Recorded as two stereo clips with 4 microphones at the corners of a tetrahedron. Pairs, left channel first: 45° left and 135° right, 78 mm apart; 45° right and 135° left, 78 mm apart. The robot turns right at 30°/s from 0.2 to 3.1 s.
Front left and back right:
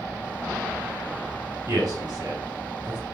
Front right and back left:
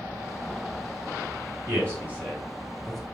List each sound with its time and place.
1.7 s a man speaking: 175° right, 3.5 m; by 3.0 s 135° right, 3.5 m